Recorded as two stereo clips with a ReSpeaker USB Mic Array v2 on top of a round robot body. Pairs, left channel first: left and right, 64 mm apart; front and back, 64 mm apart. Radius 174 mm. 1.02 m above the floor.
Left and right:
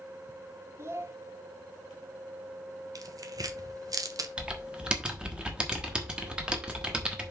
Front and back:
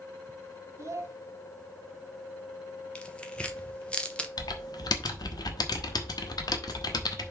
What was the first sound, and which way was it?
A child speaking, 140° right.